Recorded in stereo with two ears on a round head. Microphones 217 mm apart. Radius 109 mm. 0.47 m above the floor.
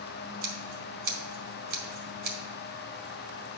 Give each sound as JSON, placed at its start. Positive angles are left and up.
{"t": 0.4, "sound": "scissors", "side_deg": -40, "distance_m": 2.0}